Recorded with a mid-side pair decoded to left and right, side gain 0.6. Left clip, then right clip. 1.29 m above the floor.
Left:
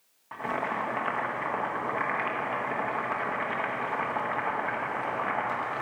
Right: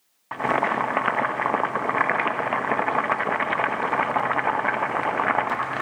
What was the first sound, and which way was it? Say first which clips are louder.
Boiling: right 8 dB; 50° right.